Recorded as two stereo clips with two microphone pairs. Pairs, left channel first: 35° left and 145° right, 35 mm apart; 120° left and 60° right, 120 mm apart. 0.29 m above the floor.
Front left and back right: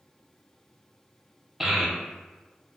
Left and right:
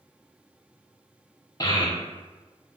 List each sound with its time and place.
1.6 s a child speaking: 155° left, 0.6 m